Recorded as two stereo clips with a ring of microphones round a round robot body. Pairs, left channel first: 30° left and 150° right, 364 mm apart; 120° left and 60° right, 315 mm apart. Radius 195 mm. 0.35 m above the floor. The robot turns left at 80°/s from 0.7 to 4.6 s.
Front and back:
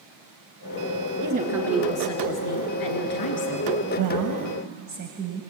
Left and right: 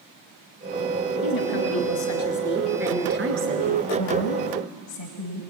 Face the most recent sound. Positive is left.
turn(degrees=145)